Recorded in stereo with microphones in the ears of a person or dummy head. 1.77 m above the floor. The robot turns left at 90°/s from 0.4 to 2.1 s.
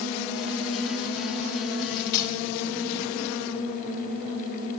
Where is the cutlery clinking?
70° left (ahead or behind), 2 m; by 2.4 s 55° left (ahead or behind), 2 m.